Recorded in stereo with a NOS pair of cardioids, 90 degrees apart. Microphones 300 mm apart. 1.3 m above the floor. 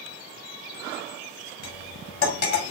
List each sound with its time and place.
1.6 s cutlery clinking: 60° left, 2.5 m